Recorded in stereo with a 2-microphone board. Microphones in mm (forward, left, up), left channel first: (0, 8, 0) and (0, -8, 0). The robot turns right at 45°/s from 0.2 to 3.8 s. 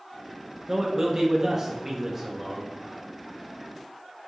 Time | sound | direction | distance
0.7 | a man speaking | 30° right (ahead or behind) | 0.5 m